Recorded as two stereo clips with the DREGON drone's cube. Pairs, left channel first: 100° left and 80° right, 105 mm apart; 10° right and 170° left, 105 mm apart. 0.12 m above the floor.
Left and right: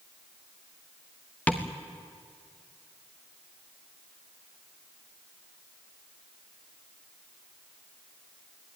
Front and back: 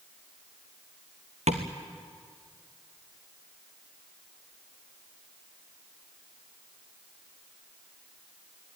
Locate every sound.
1.5 s tapping: 175° left, 2 m